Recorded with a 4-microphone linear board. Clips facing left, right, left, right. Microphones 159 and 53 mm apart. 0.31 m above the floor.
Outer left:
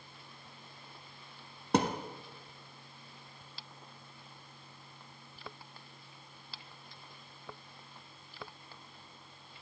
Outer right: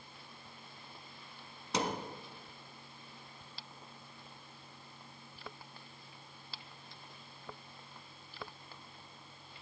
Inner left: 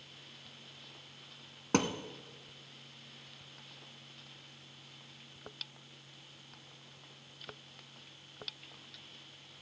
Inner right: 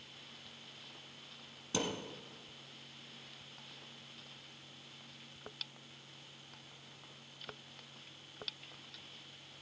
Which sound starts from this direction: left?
A thud, at 1.7 s.